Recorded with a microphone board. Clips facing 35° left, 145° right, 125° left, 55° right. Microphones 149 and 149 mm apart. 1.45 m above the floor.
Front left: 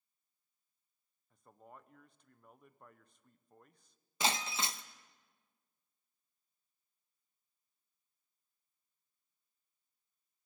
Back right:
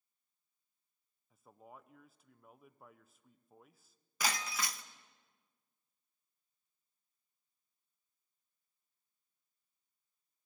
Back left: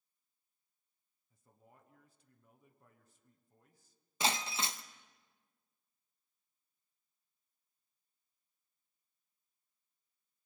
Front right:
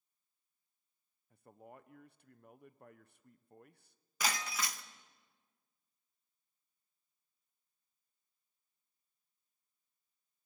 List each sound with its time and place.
1.3 s a man speaking: 60° right, 1.0 m
4.2 s breaking glass: 80° left, 0.7 m